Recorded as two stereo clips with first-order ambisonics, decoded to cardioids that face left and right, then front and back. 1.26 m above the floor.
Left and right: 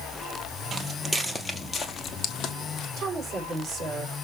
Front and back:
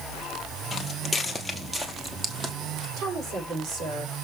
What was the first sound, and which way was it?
Footsteps, 60° right.